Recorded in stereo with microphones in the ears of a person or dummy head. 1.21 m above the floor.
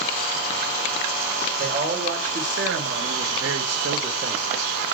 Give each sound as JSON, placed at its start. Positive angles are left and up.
{"t": 1.6, "sound": "a man speaking", "side_deg": -40, "distance_m": 1.4}